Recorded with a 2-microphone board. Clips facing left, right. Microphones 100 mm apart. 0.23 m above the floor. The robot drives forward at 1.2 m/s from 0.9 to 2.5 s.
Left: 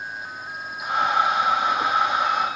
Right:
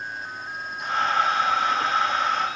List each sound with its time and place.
Only background noise.